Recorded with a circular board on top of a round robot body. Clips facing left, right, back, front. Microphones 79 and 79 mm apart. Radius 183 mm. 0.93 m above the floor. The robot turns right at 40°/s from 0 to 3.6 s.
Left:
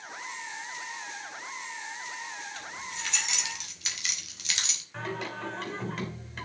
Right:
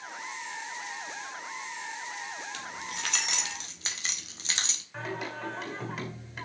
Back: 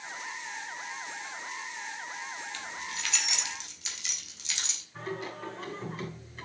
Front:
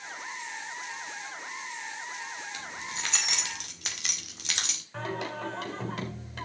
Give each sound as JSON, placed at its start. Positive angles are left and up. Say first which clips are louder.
{"t": 2.5, "sound": "keys jangling", "louder": "right 1 dB, front 1 dB", "azimuth_deg": -80, "distance_m": 2.0}
{"t": 4.9, "sound": "singing", "louder": "left 1 dB, front 3 dB", "azimuth_deg": -5, "distance_m": 3.5}